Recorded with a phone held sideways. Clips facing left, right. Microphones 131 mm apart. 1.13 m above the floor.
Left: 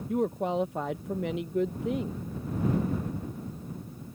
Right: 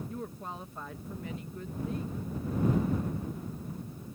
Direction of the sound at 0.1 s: 80° left.